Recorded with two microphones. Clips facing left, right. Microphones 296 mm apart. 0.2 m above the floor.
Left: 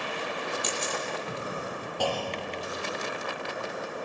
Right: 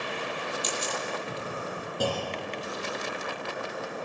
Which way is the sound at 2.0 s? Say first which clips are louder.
Even; 20° right (ahead or behind).